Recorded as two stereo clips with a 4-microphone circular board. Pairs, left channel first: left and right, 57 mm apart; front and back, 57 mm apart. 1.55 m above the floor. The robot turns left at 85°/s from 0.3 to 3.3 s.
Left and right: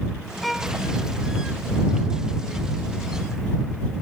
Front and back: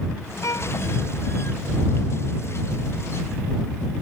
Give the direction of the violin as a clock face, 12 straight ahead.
12 o'clock.